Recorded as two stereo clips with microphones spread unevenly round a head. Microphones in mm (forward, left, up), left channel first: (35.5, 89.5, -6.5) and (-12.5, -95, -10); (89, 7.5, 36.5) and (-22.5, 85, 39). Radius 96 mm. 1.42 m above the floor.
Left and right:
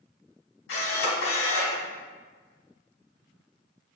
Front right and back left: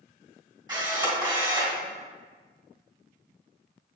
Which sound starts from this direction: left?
A camera shutter, at 0.7 s.